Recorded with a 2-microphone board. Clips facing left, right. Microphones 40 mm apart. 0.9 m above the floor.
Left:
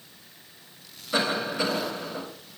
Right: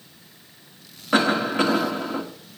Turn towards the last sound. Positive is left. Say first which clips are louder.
# right 6 dB
turn(degrees=-55)  # may be behind; listen again after turning